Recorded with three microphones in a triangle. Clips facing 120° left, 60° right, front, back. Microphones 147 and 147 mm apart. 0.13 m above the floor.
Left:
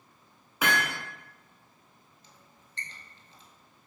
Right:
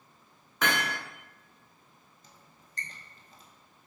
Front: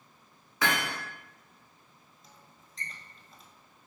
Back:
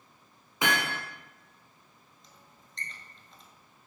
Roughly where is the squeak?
Right.